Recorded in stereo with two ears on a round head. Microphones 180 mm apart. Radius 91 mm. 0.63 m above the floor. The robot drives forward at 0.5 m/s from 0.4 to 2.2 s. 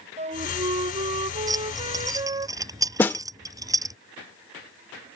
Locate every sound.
0.2 s a flute: 30° right (ahead or behind); by 2.5 s 20° right (ahead or behind)
1.5 s keys jangling: 15° right (ahead or behind)
3.0 s a snare drum: 10° left (ahead or behind)